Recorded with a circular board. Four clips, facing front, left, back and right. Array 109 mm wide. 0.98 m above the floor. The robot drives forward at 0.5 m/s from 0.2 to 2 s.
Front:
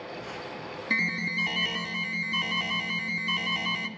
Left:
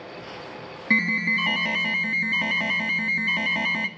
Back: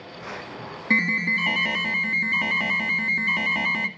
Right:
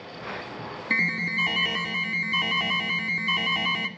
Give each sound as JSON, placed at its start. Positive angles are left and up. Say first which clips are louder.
{"t": 0.9, "sound": "an alarm", "louder": "left 5 dB, back 7 dB", "azimuth_deg": 135, "distance_m": 2.5}